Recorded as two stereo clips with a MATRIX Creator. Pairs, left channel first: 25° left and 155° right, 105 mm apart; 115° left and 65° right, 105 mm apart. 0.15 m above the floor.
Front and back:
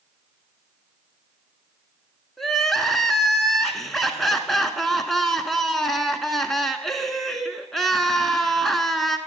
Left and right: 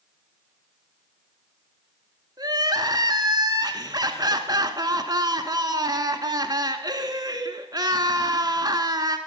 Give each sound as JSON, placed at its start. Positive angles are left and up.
{"t": 2.4, "sound": "crying", "azimuth_deg": -65, "distance_m": 1.1}